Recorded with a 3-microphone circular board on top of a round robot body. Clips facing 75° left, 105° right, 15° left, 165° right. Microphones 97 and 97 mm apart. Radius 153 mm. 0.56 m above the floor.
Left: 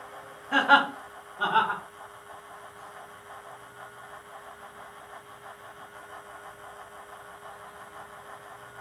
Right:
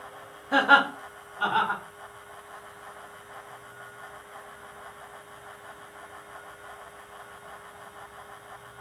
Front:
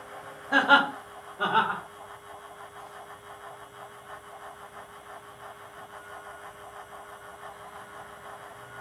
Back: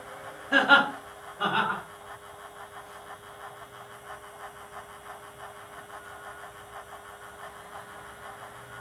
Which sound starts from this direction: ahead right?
Laughter, at 0.5 s.